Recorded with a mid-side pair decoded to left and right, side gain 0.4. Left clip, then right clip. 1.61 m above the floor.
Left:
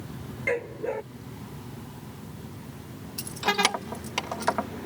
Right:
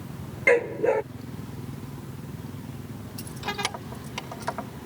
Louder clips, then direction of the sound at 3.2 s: Left 6 dB; 50° left.